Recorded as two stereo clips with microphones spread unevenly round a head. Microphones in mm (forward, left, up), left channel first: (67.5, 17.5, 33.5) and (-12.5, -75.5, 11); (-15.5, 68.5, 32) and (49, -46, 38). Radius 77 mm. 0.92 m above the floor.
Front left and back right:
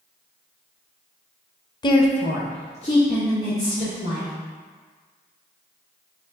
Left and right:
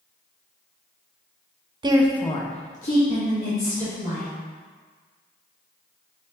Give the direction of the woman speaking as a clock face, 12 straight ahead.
12 o'clock.